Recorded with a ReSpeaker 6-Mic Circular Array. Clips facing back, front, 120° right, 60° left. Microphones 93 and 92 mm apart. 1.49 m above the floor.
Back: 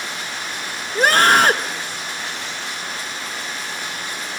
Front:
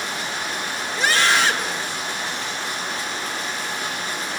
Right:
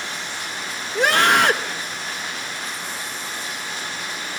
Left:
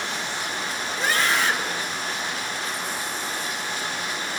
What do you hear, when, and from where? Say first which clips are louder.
0.9 s a scream: back 6 dB, right 7 dB; 140° right, 1.6 m